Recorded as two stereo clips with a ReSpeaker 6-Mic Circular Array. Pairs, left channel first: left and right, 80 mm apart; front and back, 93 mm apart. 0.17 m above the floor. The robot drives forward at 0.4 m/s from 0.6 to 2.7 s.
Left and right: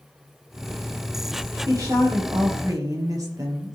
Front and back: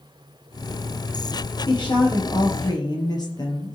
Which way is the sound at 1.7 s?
40° right.